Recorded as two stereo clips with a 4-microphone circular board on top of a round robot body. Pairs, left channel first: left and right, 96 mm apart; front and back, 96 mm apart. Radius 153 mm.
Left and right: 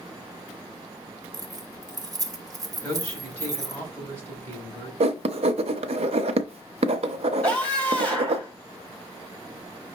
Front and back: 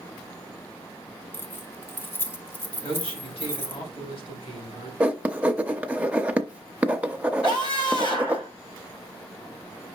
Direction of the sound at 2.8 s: 15° left.